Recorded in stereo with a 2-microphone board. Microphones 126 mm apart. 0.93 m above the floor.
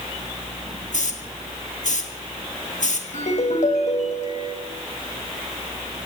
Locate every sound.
0.9 s a hiss: 75° left (ahead or behind), 2 m
3.1 s a ringtone: 70° left (ahead or behind), 2.5 m